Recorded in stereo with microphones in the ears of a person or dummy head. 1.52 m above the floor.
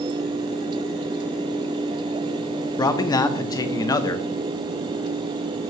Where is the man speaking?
15° left (ahead or behind), 0.7 m.